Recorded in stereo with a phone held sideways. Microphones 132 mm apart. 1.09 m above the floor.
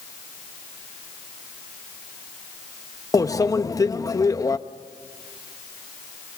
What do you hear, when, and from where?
3.1 s a microwave: 25° left (ahead or behind), 0.6 m